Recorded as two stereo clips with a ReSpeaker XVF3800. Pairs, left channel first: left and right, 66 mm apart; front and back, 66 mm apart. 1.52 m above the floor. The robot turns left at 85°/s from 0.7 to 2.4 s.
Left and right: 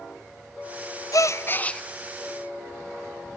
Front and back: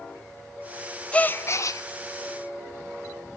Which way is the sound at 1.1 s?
70° left.